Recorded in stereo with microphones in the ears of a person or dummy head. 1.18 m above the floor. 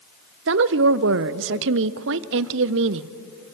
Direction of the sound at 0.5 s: 65° right (ahead or behind).